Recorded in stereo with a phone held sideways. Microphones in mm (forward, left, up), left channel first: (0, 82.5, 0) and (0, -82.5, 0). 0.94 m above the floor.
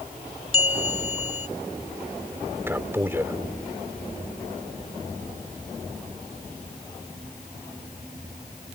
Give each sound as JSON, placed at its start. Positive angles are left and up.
{"t": 0.5, "sound": "a bell", "side_deg": 35}
{"t": 2.7, "sound": "a man speaking", "side_deg": -15}